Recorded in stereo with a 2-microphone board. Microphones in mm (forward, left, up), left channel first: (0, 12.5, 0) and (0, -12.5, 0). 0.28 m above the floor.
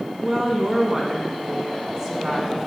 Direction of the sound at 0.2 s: 25° right (ahead or behind).